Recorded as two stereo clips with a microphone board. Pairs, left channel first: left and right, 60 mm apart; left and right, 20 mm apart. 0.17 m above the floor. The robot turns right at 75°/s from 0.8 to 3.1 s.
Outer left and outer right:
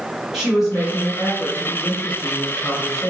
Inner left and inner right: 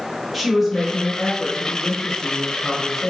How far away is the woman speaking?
About 1.4 m.